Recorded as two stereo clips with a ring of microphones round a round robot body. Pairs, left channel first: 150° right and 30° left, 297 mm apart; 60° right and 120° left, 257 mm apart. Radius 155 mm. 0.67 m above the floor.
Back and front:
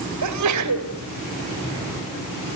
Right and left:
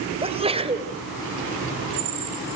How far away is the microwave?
No microwave in this recording.